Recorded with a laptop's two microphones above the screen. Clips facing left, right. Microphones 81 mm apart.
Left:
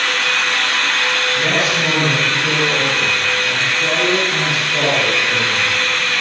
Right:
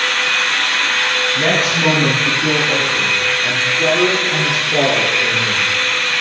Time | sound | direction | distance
1.4 | a man speaking | 45° right (ahead or behind) | 7.5 m